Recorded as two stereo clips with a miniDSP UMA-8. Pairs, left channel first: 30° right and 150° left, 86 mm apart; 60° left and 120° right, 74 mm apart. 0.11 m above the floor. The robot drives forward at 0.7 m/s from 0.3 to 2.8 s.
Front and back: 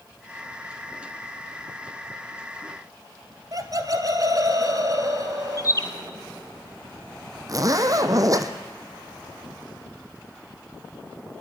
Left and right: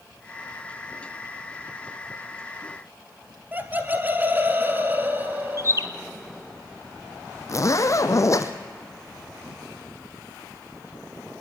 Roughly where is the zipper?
Left.